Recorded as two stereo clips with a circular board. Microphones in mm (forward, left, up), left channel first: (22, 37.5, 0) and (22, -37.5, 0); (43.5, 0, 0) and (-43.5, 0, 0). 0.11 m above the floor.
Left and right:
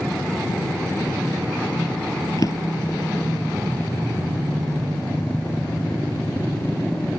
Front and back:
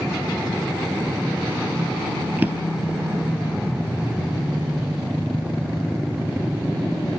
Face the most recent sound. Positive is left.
turn(degrees=115)